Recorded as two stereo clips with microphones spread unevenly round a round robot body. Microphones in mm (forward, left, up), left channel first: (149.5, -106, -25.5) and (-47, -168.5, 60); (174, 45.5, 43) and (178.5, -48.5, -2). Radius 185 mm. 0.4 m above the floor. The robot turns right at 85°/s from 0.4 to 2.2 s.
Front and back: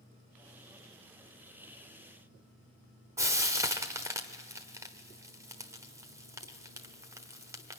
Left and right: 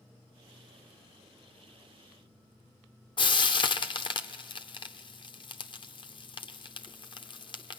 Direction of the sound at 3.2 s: 85° left.